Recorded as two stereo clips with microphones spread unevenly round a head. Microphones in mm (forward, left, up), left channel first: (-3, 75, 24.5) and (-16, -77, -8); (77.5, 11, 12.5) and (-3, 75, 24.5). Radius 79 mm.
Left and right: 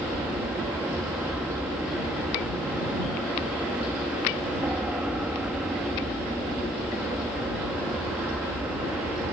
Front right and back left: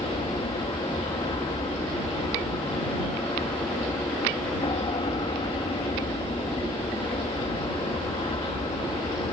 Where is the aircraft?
10° right.